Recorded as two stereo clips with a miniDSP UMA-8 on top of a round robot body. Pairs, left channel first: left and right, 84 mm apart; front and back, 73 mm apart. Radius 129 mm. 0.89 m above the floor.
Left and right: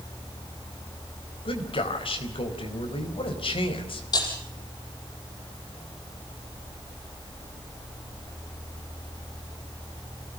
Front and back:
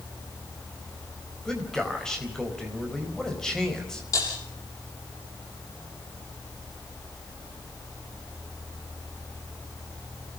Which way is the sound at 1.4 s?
80° left.